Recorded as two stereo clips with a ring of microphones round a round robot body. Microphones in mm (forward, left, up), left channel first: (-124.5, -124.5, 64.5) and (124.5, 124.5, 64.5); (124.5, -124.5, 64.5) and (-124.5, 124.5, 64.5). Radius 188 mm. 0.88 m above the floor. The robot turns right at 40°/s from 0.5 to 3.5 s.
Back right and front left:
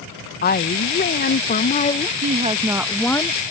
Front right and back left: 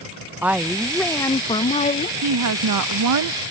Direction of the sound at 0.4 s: 145° right.